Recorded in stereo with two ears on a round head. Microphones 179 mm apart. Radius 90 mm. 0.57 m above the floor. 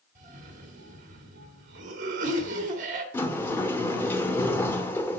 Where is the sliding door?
10° left (ahead or behind), 1.0 m.